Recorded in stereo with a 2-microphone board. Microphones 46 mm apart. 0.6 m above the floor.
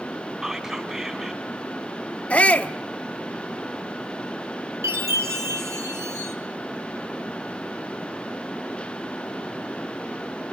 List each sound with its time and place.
0.4 s whispering: 20° right (ahead or behind), 3 m
2.3 s a shout: 30° left (ahead or behind), 1.1 m
4.8 s a chime: 75° right (ahead or behind), 5.5 m